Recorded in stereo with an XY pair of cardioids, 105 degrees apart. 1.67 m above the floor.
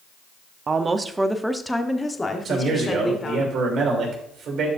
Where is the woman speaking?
40° right, 0.8 m; by 3.5 s 35° left, 1.9 m.